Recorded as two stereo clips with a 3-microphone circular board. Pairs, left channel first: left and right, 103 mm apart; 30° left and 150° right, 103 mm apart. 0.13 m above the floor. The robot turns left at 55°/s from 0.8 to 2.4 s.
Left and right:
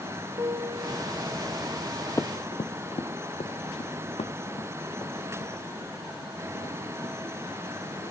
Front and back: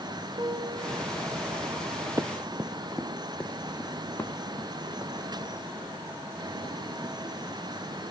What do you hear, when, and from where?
0.4 s a piano: 110° right, 4 m; by 1.9 s 175° right, 4 m
2.2 s running footsteps: 150° left, 0.5 m; by 8.1 s 90° left, 4 m